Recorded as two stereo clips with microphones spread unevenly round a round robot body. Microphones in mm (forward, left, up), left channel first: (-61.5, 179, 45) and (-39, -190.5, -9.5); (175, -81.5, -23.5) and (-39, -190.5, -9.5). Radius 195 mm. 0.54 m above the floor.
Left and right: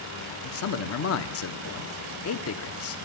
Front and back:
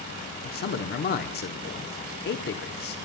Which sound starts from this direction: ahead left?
A man speaking, at 0.4 s.